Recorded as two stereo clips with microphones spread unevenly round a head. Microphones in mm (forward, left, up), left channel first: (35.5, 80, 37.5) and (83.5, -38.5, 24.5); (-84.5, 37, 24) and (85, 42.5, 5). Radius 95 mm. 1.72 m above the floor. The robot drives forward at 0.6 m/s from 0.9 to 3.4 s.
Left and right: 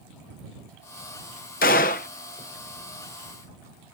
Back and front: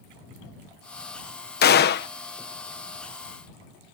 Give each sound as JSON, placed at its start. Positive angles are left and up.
{"t": 1.6, "sound": "a gunshot", "azimuth_deg": 155}